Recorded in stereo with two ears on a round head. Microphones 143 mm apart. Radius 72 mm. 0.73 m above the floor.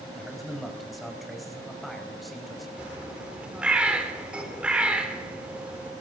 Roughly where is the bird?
Centre.